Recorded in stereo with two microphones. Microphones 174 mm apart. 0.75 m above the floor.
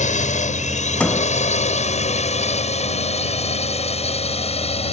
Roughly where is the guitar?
I don't hear a guitar.